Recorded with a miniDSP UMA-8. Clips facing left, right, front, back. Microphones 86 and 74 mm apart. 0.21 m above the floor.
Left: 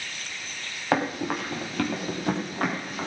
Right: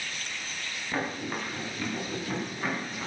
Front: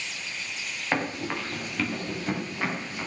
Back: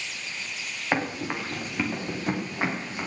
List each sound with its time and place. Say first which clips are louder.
0.9 s running footsteps: left 7 dB, back 1 dB; 100° left, 6.5 m; by 3.1 s 115° left, 7.5 m